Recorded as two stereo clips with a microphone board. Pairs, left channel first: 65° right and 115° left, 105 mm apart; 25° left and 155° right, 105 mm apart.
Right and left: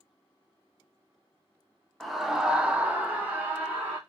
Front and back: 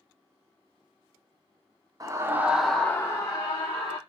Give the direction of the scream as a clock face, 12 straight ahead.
5 o'clock.